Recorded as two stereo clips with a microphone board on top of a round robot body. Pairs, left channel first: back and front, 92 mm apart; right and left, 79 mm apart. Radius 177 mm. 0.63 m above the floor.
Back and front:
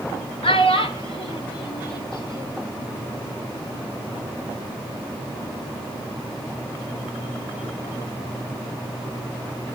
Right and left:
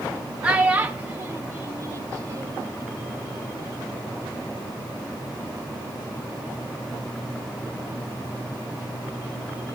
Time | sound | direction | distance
0.4 | a child speaking | 165° left | 2.5 m